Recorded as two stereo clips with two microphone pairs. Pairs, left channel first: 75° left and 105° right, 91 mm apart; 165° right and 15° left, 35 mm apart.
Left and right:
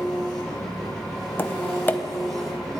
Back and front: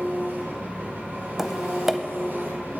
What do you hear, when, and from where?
0.0 s an engine running: 15° right, 5 m
1.4 s tapping: 85° left, 0.6 m